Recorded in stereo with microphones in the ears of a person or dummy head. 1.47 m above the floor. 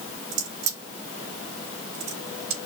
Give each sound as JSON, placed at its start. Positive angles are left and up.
{"t": 0.3, "sound": "a crack", "side_deg": -85, "distance_m": 4.0}